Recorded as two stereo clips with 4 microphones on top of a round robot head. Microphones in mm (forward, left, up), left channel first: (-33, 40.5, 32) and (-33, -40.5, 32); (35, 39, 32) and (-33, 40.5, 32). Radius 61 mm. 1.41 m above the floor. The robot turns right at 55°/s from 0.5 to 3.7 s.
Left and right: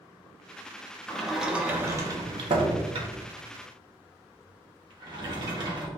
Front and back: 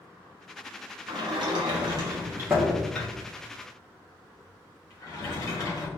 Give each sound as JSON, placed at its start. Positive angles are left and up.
{"t": 1.1, "sound": "a sliding door", "azimuth_deg": 170, "distance_m": 1.1}